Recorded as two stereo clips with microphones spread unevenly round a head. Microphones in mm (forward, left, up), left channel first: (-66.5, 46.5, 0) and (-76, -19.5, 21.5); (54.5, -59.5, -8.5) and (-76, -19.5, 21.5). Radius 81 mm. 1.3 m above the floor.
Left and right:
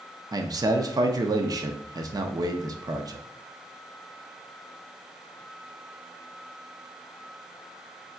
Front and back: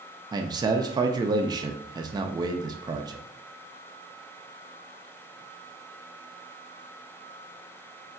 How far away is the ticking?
I don't hear ticking.